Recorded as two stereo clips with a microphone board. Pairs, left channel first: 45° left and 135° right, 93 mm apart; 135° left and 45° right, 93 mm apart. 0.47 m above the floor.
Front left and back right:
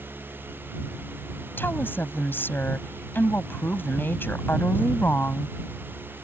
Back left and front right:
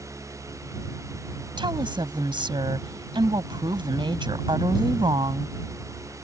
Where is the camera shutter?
I don't hear a camera shutter.